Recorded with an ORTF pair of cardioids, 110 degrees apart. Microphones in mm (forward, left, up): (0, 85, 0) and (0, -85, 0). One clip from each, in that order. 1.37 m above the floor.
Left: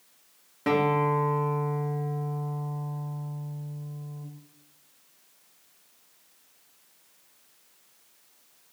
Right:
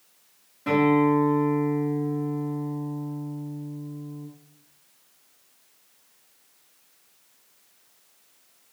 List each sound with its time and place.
0.7 s a guitar: 45° left, 1.0 m